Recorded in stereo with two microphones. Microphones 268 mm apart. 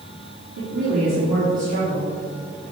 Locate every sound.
0.6 s a woman speaking: 80° right, 3 m